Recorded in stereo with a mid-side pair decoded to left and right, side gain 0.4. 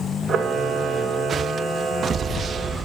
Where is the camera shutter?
55° right, 1.5 m.